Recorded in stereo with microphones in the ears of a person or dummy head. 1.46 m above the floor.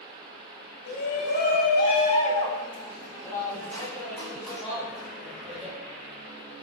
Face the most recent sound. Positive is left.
turn(degrees=-10)  # may be behind; listen again after turning